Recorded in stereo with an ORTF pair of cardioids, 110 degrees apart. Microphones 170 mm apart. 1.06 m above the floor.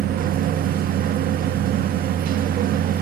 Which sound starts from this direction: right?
A machine running, at 0.0 s.